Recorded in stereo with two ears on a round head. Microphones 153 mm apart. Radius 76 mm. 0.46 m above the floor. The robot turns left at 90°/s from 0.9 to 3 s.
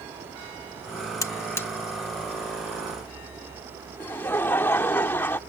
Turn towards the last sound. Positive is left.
turn(degrees=10)  # may be behind; listen again after turning